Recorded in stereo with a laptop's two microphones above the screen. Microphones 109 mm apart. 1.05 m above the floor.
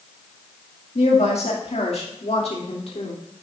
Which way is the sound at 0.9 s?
70° left (ahead or behind).